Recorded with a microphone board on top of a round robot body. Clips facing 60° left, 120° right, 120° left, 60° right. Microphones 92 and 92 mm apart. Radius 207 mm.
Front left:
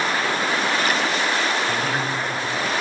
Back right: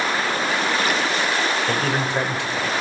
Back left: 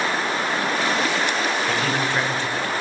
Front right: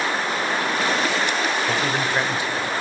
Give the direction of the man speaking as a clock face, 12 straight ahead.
5 o'clock.